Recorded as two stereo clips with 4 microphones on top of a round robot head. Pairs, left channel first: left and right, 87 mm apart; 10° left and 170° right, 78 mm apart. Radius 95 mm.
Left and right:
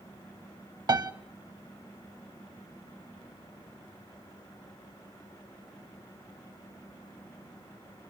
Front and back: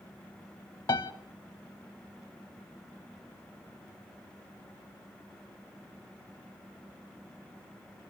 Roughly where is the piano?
Ahead right.